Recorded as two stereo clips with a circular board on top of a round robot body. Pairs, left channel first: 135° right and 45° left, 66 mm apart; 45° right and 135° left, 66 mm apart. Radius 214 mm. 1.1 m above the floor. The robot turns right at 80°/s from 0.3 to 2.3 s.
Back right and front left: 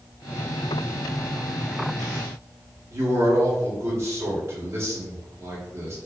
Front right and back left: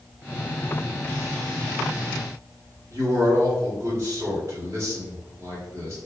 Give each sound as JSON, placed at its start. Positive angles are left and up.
{"t": 2.9, "sound": "a man speaking", "azimuth_deg": 90, "distance_m": 1.5}